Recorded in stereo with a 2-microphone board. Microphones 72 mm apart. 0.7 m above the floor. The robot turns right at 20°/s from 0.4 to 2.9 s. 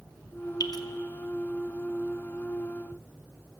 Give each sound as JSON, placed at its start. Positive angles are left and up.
{"t": 0.6, "sound": "dripping", "side_deg": 70, "distance_m": 0.5}